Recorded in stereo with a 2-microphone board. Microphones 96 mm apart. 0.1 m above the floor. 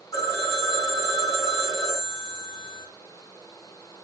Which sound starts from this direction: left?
A phone ringing, at 0.1 s.